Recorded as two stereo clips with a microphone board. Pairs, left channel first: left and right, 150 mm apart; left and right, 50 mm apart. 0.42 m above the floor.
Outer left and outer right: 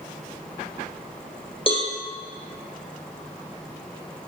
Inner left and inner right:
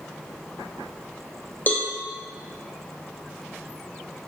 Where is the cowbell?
40° left (ahead or behind), 3 m.